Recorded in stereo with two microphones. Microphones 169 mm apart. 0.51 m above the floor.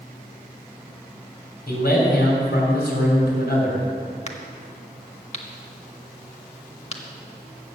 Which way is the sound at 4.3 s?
40° left (ahead or behind).